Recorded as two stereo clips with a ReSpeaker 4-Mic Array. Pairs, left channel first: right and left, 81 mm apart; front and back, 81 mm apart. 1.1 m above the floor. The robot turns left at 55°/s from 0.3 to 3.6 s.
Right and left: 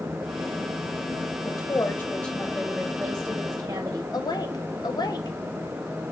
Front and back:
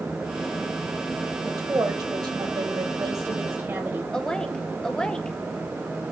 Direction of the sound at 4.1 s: 80° right.